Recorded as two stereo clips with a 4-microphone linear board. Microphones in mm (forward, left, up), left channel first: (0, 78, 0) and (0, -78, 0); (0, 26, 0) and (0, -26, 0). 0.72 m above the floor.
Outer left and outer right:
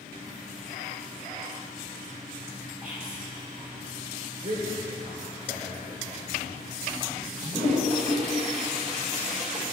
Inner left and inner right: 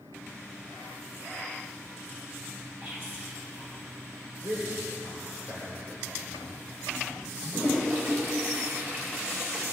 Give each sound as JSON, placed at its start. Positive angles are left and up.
{"t": 2.8, "sound": "whispering", "side_deg": -60, "distance_m": 4.5}
{"t": 4.4, "sound": "a man speaking", "side_deg": -55, "distance_m": 2.5}
{"t": 7.4, "sound": "a toilet flushing", "side_deg": -50, "distance_m": 2.0}